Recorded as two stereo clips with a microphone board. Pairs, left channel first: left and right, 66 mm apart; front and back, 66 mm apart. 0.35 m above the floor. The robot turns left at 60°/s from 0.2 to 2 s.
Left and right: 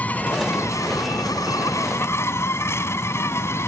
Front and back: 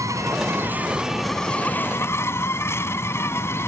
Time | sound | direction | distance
0.0 | an insect | 155° left | ?